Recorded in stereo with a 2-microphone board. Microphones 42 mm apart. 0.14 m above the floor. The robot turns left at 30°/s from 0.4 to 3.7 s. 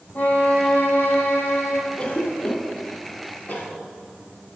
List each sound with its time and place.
0.1 s a violin: 140° left, 1.4 m; by 1.8 s 95° left, 1.4 m
2.0 s a cough: 25° left (ahead or behind), 2.5 m; by 3.7 s 45° left (ahead or behind), 2.5 m